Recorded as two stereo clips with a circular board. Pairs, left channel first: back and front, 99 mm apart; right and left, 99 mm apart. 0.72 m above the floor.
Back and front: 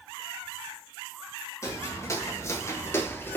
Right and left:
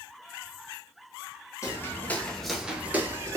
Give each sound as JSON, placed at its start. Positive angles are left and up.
{"t": 1.6, "sound": "footsteps", "azimuth_deg": -135, "distance_m": 0.9}